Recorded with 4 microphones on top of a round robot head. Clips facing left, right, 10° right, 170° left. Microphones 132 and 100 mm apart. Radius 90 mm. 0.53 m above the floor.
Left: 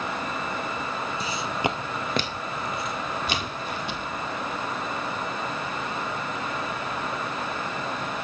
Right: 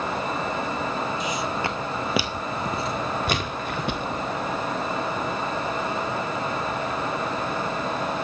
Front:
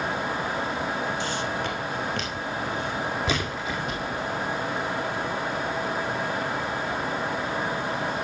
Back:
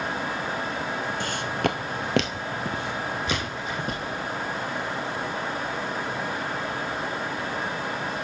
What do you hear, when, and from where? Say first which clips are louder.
1.2 s footsteps: right 1 dB, back 2 dB; 140° left, 0.8 m; by 4.1 s 120° right, 1.3 m
3.3 s a splash: right 3 dB, front 2 dB; 40° right, 1.5 m